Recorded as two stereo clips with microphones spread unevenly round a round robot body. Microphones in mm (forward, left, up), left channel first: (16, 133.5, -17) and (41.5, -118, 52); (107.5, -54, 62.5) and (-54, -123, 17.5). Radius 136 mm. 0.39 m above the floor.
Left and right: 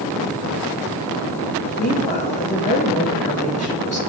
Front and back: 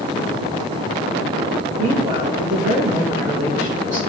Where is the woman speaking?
155° left, 4.5 m.